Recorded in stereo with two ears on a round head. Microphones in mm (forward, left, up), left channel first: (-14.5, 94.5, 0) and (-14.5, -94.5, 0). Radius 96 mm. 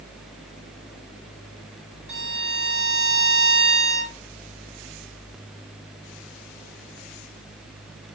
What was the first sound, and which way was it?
A violin, 30° right (ahead or behind).